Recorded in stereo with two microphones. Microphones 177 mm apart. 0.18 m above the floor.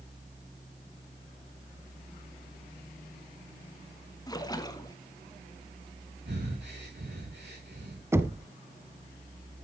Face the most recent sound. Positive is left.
turn(degrees=-15)  # may be behind; listen again after turning